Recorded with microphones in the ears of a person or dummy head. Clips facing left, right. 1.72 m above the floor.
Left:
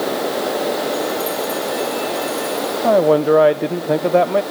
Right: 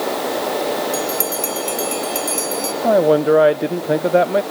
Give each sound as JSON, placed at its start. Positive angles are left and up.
{"t": 0.9, "sound": "a bell", "side_deg": -75, "distance_m": 2.5}
{"t": 2.8, "sound": "a man speaking", "side_deg": 0, "distance_m": 0.6}